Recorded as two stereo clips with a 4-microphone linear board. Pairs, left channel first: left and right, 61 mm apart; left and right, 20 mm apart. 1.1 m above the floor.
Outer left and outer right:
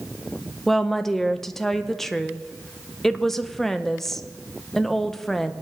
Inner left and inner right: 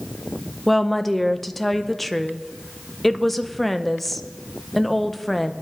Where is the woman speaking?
5° left (ahead or behind), 0.7 m.